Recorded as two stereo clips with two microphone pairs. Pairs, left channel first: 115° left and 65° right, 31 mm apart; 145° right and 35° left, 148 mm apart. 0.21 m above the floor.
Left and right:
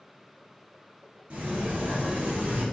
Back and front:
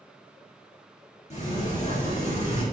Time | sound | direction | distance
1.3 | a sliding door | 110° right | 3 m